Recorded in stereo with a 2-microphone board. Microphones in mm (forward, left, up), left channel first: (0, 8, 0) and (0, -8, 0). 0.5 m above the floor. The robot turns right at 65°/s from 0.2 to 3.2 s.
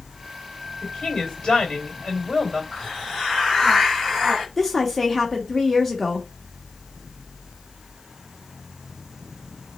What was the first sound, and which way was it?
A woman speaking, 30° left.